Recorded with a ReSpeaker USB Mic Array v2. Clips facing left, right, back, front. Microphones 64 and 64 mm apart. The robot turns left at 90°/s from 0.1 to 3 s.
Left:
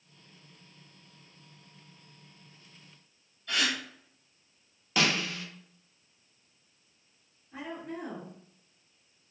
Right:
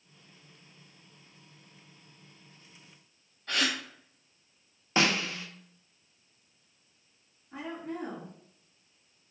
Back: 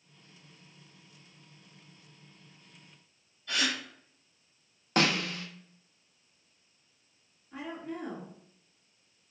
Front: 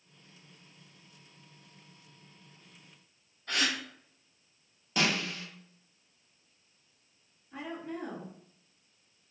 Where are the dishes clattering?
No dishes clattering in this recording.